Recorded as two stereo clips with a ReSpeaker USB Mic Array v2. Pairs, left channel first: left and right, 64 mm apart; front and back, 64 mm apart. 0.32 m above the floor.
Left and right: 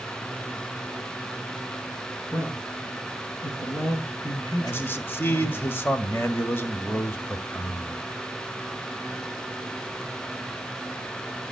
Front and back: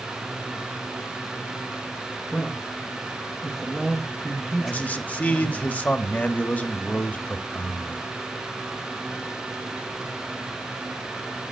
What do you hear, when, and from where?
2.3 s a man speaking: 75° left, 5 m; by 5.6 s 95° left, 4.5 m
4.6 s a man speaking: 50° left, 1.6 m